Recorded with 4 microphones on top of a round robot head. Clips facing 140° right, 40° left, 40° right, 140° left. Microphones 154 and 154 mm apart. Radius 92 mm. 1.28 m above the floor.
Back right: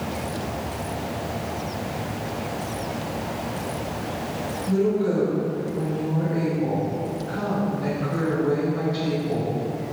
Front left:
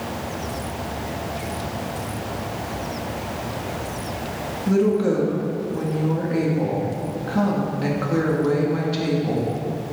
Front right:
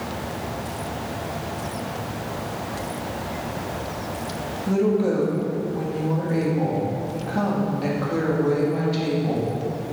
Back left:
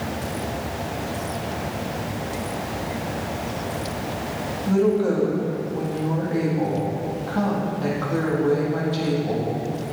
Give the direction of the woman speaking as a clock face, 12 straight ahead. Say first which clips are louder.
Front left 3 dB, back left 1 dB; 11 o'clock.